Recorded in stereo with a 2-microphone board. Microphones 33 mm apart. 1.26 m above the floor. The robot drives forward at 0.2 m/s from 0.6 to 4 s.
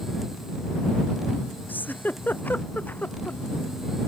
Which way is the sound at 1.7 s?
65° left (ahead or behind).